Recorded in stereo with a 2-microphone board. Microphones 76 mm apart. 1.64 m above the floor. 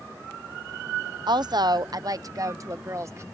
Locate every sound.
1.3 s a woman speaking: 70° right (ahead or behind); by 3.2 s 40° right (ahead or behind)